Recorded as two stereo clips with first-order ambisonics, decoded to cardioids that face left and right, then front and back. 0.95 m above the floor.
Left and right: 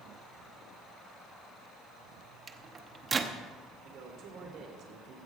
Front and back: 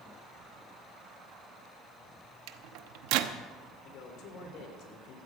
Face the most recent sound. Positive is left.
turn(degrees=-40)